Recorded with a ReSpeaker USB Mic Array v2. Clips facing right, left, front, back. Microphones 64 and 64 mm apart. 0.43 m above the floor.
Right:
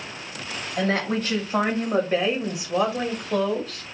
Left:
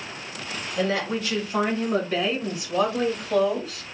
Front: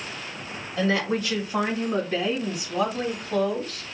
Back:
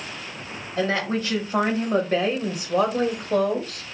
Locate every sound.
0.8 s a woman speaking: 130° right, 2.5 m; by 3.8 s 165° left, 1.8 m